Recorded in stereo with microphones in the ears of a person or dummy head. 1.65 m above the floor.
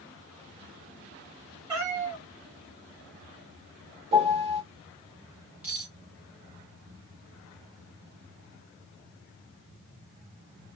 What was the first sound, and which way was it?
A cat meowing, 15° right (ahead or behind).